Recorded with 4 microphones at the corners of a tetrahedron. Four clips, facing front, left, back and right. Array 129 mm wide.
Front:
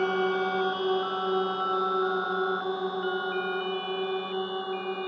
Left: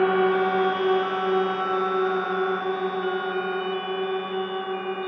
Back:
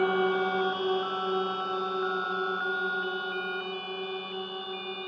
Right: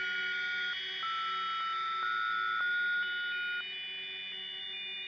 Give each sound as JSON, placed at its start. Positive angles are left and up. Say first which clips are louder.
{"t": 0.0, "sound": "a drone", "louder": "left 17 dB, even", "azimuth_deg": 95}